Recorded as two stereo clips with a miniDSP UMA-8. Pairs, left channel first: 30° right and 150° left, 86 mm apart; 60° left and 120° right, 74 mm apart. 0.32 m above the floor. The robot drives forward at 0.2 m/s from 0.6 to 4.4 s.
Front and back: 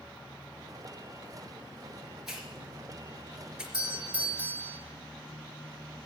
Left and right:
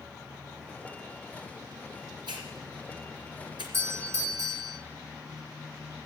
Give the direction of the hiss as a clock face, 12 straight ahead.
4 o'clock.